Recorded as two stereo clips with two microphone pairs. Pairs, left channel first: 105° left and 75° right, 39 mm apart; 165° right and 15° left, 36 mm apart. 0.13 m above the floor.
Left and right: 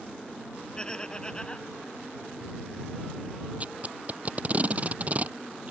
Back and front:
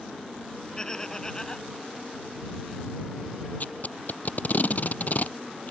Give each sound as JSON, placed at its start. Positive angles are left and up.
{"t": 0.8, "sound": "laughter", "azimuth_deg": 150}
{"t": 3.6, "sound": "tape being pulled", "azimuth_deg": -125}